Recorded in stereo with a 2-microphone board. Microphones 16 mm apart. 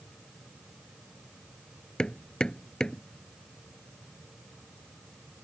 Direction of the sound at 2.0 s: 50° left (ahead or behind).